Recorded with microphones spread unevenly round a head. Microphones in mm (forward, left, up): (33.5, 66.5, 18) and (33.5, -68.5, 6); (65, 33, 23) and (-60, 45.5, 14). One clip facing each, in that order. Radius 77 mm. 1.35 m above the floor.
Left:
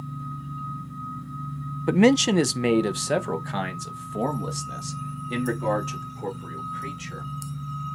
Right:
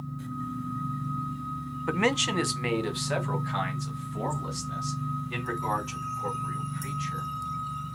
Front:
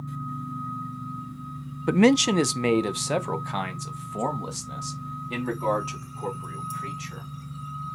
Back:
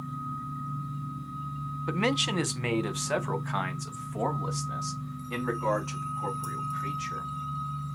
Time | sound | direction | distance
1.9 | a man speaking | 30° left | 0.5 m